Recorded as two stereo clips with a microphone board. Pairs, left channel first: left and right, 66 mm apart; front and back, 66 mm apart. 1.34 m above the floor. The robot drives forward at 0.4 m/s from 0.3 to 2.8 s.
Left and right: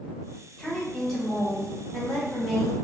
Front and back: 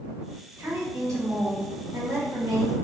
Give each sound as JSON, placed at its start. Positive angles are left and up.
{"t": 0.6, "sound": "a woman speaking", "azimuth_deg": 170, "distance_m": 1.5}